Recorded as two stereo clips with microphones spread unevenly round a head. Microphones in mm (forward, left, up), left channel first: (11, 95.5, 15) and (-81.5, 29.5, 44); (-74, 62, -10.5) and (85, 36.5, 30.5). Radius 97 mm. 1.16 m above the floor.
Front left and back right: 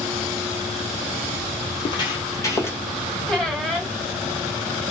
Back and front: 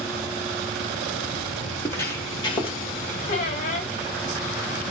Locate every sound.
1.7 s footsteps: 80° left, 1.8 m; by 2.8 s 115° left, 1.5 m
3.3 s a squeak: 140° left, 1.1 m